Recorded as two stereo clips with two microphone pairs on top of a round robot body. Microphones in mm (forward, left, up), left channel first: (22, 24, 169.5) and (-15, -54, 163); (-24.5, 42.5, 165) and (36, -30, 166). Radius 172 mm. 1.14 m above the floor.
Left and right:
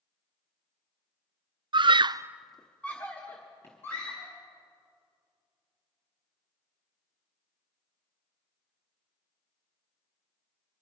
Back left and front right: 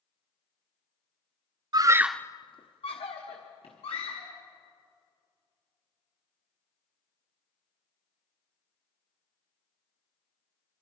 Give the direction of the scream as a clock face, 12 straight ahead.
3 o'clock.